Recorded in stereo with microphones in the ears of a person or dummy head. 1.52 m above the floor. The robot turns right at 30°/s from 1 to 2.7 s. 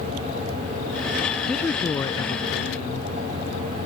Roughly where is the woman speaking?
Ahead.